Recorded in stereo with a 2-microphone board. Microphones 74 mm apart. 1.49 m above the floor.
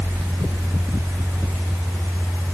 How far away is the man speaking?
I don't hear a man speaking.